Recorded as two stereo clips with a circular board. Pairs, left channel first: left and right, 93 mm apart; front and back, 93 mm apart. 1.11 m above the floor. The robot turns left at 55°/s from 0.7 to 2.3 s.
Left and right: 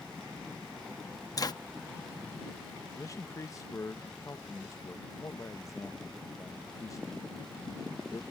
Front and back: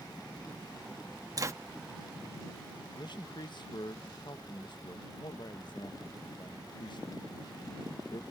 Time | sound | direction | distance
1.4 | a zipper | 135° left | ?
3.0 | a man speaking | 35° left | ?